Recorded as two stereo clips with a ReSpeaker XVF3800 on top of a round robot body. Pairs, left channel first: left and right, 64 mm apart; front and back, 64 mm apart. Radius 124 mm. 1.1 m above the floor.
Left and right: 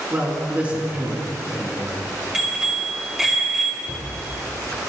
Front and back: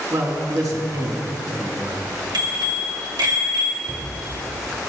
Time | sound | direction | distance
0.1 | a man speaking | 155° right | 3.5 m
2.3 | a bicycle bell | 170° right | 2 m
3.8 | a cupboard door | 95° right | 4 m